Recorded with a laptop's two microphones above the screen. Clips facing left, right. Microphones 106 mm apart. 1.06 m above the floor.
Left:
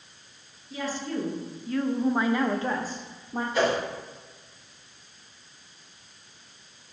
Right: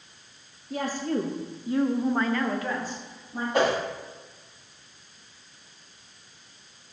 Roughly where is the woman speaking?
Right.